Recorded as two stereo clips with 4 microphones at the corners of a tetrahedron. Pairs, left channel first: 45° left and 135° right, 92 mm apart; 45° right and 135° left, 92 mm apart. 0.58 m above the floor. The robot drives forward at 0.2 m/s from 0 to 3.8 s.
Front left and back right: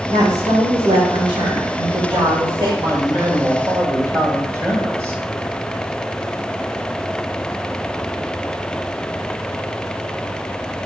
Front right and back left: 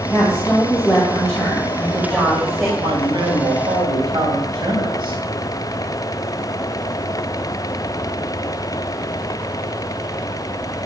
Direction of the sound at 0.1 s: 125° right.